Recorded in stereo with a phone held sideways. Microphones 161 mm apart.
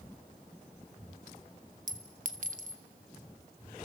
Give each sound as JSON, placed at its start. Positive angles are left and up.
{"t": 1.9, "sound": "a clink", "side_deg": -55, "distance_m": 1.2}